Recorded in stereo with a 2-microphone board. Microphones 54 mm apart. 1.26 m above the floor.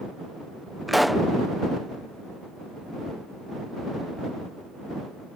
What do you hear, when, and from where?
0.9 s a pop: centre (ahead or behind)